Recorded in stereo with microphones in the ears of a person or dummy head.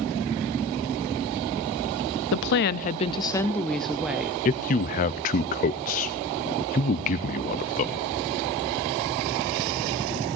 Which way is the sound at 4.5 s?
30° left (ahead or behind).